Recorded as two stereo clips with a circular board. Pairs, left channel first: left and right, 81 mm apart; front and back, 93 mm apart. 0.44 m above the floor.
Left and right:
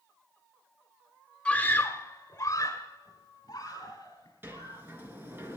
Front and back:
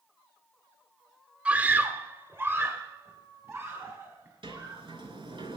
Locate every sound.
1.4 s a scream: 135° left, 0.7 m; by 4.8 s 120° left, 3 m
4.4 s a sliding door: 155° right, 2.5 m